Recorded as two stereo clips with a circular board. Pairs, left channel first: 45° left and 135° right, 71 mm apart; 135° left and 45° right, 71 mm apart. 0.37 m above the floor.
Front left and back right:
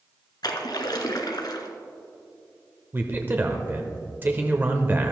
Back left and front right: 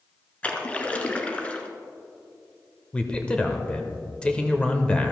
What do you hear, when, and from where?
0.4 s a splash: 65° left, 1.1 m
2.9 s a man speaking: 165° right, 0.9 m